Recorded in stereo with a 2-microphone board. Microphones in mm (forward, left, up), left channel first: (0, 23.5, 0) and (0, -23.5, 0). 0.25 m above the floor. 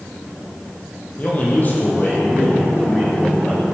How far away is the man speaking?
About 8 m.